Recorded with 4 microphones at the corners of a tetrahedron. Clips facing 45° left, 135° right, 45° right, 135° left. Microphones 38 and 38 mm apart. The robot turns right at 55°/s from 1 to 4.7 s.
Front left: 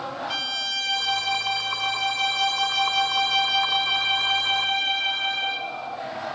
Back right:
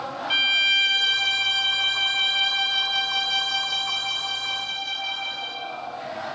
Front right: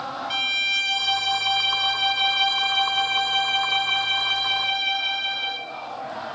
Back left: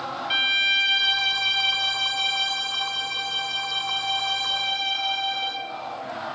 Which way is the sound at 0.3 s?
175° right.